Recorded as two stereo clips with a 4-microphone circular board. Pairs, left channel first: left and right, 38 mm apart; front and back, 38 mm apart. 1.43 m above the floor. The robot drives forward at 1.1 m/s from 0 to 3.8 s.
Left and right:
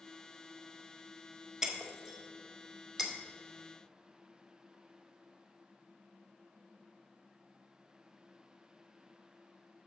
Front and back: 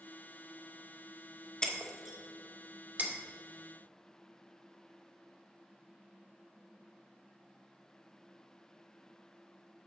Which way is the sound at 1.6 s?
25° right.